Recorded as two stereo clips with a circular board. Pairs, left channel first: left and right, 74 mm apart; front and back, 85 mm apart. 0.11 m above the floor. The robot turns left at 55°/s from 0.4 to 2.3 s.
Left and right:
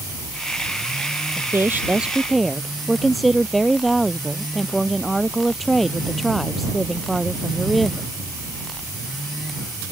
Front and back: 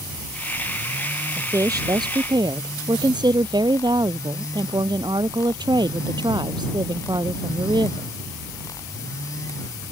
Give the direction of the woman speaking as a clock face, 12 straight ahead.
4 o'clock.